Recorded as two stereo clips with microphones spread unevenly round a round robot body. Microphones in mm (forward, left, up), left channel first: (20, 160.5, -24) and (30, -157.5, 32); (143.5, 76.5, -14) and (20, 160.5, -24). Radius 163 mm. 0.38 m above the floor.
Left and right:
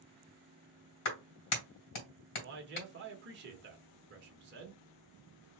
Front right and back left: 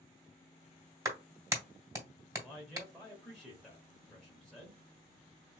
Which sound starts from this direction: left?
A clap, at 1.1 s.